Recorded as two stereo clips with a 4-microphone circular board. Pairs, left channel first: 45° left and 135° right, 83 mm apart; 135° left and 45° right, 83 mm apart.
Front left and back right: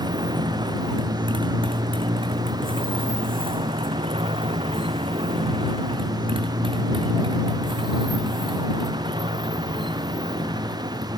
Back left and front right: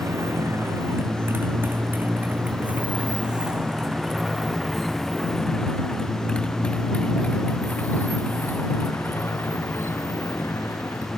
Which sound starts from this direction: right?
A motorcycle, at 0.0 s.